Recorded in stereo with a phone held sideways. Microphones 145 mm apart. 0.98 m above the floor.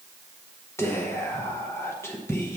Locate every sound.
0.8 s whispering: 20° left (ahead or behind), 0.7 m